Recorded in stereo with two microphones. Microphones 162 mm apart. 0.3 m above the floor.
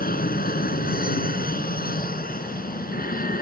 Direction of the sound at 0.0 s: 65° left (ahead or behind).